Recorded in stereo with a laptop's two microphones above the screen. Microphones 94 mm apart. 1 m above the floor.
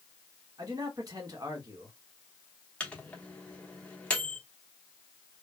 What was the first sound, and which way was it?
A man speaking, 40° right (ahead or behind).